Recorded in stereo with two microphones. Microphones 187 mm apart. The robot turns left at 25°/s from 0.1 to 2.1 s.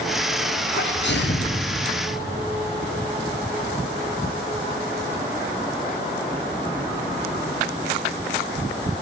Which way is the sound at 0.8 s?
75° left (ahead or behind).